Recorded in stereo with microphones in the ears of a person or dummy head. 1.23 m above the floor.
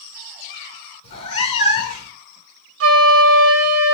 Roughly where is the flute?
Right.